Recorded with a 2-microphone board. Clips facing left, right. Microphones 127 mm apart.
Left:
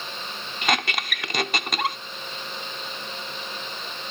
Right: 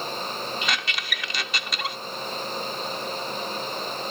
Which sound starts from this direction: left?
A squeak, at 0.6 s.